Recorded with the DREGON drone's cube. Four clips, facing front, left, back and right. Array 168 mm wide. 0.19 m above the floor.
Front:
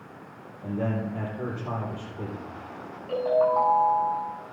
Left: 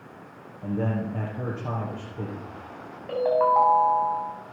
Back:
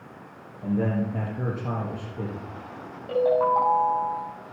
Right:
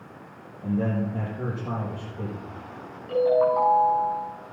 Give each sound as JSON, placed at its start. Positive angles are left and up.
{"t": 0.6, "sound": "a man speaking", "azimuth_deg": 145, "distance_m": 5.0}
{"t": 3.1, "sound": "a ringtone", "azimuth_deg": 120, "distance_m": 7.0}